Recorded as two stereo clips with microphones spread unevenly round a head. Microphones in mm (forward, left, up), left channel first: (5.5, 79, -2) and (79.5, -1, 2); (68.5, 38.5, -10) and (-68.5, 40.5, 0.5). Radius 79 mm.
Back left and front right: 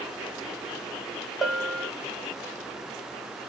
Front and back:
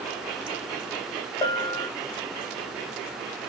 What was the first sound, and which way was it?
A bell, 30° left.